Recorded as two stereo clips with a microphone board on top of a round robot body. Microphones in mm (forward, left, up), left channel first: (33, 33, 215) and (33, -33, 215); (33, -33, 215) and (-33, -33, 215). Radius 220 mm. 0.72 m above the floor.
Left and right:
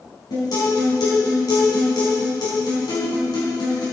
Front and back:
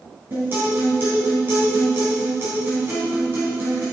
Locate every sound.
0.3 s a guitar: 115° left, 3.5 m